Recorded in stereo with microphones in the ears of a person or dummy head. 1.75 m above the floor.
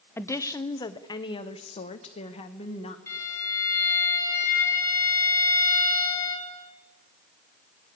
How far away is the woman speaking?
About 0.8 m.